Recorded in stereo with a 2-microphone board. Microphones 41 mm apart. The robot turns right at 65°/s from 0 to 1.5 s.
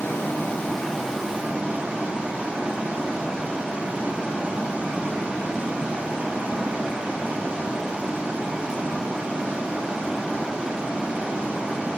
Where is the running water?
115° left, 0.8 m; by 12.0 s 150° right, 0.8 m.